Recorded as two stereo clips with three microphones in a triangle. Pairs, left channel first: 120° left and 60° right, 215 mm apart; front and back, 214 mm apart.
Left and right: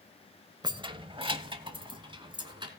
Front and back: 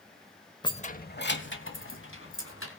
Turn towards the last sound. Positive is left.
turn(degrees=5)